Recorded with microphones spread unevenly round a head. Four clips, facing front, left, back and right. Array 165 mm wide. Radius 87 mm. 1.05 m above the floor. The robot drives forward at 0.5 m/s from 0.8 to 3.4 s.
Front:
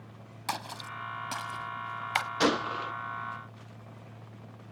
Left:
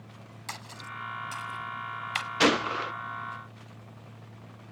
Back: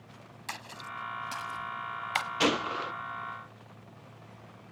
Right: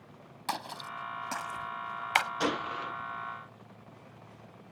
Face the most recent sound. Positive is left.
turn(degrees=140)